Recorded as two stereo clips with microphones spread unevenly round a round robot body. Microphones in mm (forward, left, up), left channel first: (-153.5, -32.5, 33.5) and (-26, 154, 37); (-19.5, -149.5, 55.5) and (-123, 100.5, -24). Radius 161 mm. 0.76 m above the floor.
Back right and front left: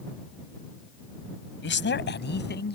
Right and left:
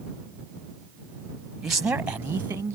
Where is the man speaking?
160° right; by 2.8 s 170° right.